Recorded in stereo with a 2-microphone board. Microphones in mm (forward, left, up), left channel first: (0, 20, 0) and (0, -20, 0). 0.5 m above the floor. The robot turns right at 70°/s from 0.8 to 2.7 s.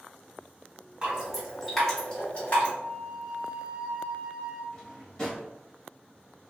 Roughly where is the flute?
Centre.